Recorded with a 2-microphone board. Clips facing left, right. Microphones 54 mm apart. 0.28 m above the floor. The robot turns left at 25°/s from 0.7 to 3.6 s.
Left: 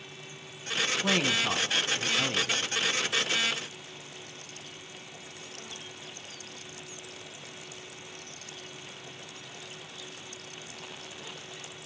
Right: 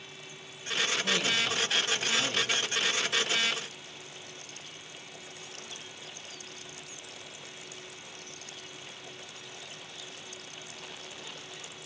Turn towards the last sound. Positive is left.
turn(degrees=-10)